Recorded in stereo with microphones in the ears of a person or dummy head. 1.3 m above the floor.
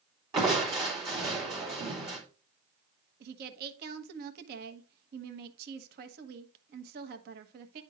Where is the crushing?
25° right (ahead or behind), 3.5 m.